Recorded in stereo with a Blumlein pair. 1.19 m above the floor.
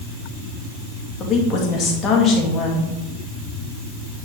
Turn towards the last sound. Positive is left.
turn(degrees=25)